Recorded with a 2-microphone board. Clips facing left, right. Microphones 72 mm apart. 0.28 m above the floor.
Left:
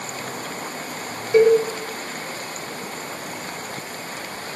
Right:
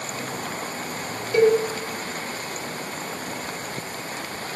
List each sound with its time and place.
1.3 s a cowbell: 25° left (ahead or behind), 1.7 m